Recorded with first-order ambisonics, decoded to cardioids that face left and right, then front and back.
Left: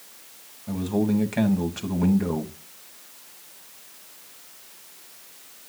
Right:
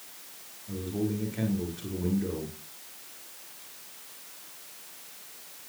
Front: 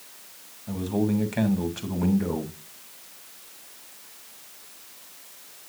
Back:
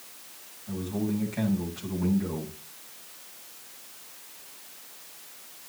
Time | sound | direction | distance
0.7 | a man speaking | 60° left | 3 m